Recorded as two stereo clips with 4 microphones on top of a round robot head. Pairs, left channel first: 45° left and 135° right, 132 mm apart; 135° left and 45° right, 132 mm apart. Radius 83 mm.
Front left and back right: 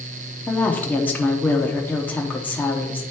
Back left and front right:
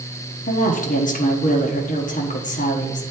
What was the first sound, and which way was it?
A woman speaking, 125° left.